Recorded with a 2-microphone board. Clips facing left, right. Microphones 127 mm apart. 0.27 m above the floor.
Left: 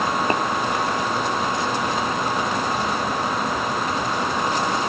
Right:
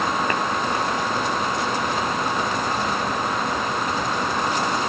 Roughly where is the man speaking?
I don't hear a man speaking.